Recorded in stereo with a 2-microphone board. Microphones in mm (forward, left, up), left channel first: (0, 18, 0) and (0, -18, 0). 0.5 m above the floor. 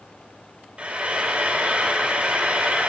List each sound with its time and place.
0.8 s frying: 30° right (ahead or behind), 1.4 m